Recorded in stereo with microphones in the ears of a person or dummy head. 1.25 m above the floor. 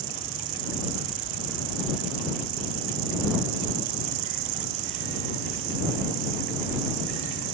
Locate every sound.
0.0 s an insect: 75° right (ahead or behind)